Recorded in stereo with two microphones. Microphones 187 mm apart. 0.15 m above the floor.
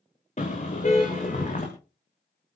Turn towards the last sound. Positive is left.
turn(degrees=40)  # may be behind; listen again after turning